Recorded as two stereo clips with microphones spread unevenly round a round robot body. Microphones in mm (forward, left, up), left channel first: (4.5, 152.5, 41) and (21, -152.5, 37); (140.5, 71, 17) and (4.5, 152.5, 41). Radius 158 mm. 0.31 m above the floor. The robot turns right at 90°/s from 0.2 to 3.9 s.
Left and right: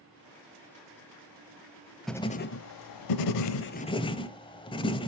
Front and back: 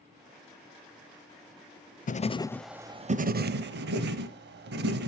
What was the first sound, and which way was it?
Writing, 5° left.